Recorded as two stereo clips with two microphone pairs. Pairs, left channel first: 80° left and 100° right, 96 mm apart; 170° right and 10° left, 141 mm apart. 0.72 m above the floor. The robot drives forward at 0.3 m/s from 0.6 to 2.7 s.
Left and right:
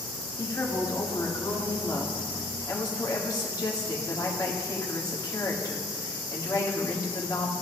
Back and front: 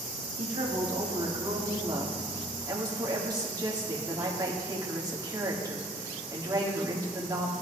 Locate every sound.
0.4 s a woman speaking: 35° left, 1.6 m; by 7.5 s 60° left, 1.3 m